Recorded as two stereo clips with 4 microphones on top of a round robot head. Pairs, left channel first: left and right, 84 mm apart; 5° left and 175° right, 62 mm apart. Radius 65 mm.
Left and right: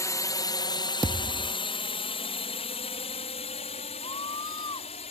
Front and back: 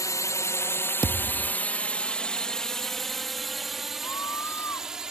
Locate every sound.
0.0 s a drone: 35° left; by 5.1 s 105° left
1.0 s a thud: 140° right
4.0 s a scream: 55° left